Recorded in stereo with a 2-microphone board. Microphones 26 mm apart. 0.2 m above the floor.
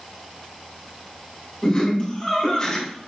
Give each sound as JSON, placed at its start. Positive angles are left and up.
{"t": 1.6, "sound": "laughter", "side_deg": 30, "distance_m": 1.8}